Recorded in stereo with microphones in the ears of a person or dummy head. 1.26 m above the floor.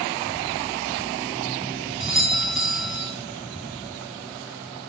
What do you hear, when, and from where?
2.0 s a doorbell: centre (ahead or behind), 3.5 m